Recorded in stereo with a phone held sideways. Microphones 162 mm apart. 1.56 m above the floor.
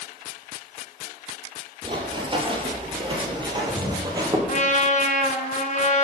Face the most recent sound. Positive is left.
turn(degrees=45)  # may be behind; listen again after turning